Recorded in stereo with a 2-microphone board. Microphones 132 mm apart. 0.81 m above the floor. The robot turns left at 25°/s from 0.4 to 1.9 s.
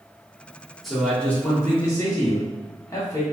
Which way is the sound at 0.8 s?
Centre (ahead or behind).